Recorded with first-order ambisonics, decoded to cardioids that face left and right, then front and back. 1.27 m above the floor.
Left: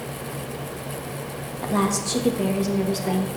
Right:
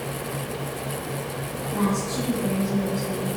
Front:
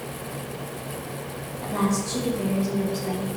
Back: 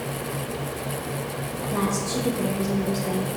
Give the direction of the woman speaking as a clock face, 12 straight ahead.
9 o'clock.